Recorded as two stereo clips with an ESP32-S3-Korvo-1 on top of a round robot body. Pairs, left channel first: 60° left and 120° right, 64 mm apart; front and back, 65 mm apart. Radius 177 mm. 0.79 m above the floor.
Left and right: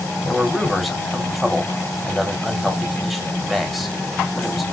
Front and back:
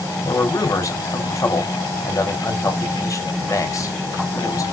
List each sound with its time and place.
0.2 s a man speaking: 30° right, 3.5 m